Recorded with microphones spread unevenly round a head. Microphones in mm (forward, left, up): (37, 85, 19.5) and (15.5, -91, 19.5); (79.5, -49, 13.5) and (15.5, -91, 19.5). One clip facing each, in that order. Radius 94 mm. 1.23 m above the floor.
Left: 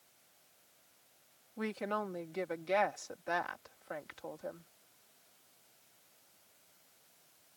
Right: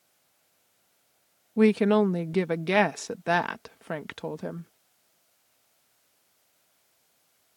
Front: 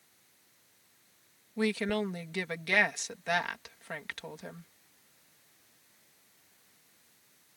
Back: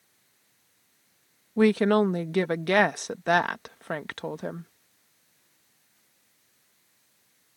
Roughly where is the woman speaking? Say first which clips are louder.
Right 18 dB, back 10 dB; right.